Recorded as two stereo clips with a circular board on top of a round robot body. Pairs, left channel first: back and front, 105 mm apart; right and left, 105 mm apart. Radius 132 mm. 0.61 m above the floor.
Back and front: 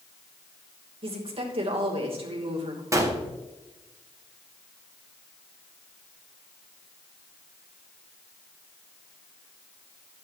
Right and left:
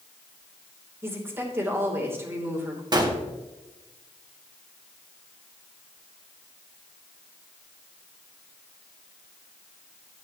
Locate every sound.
1.0 s a woman speaking: 25° left, 3 m
2.9 s a gunshot: 55° left, 1.9 m